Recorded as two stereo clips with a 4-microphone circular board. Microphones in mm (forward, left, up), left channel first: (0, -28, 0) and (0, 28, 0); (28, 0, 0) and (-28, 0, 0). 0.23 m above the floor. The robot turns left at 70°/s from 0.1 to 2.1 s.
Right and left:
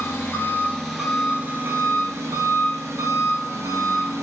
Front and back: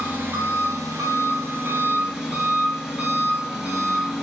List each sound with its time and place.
0.0 s an engine running: 120° right, 1.0 m; by 4.2 s 100° left, 1.0 m